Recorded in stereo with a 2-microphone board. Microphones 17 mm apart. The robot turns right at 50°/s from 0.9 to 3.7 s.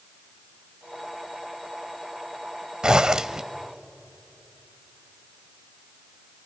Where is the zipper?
60° right (ahead or behind), 0.7 m; by 3.4 s 45° right (ahead or behind), 0.7 m.